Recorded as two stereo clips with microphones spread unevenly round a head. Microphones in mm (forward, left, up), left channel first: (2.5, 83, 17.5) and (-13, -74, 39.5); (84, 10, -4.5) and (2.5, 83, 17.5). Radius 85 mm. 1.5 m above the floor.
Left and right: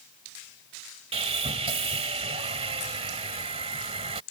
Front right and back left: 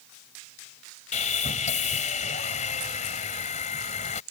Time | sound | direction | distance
1.1 | sawing | 55° right | ?